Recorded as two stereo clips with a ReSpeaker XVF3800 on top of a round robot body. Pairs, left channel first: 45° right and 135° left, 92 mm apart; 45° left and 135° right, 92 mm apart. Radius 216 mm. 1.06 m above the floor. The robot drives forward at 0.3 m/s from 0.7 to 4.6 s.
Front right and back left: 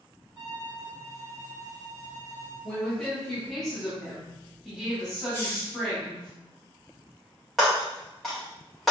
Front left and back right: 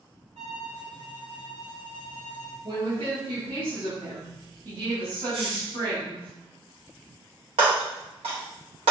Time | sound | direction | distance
0.3 | a violin | 150° right | 0.8 m
2.6 | a woman speaking | 125° right | 2 m
5.3 | a hiss | straight behind | 2 m
7.6 | breaking glass | 135° right | 1.1 m